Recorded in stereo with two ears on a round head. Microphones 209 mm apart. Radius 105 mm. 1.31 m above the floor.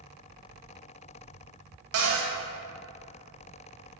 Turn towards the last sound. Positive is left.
turn(degrees=-70)  # may be behind; listen again after turning